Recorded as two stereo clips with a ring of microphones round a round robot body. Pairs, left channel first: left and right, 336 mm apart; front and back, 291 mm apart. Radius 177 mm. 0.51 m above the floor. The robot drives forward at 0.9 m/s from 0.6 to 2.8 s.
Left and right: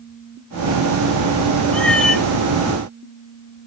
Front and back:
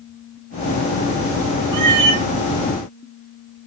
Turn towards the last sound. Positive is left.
turn(degrees=180)